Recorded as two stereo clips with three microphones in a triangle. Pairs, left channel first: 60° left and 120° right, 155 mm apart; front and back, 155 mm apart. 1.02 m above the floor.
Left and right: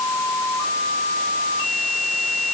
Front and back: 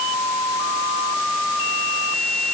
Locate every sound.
Only background noise.